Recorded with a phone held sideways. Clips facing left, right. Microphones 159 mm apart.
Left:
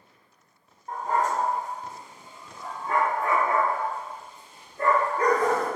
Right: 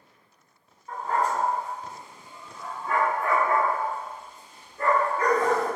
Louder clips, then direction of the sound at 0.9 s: Even; 50° left (ahead or behind).